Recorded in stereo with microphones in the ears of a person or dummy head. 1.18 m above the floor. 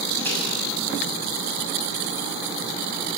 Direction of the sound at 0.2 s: 15° left (ahead or behind).